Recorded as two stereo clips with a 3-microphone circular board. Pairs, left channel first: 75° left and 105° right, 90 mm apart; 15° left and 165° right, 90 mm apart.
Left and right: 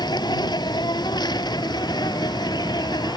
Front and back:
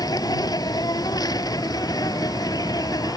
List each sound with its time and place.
0.0 s an insect: 50° left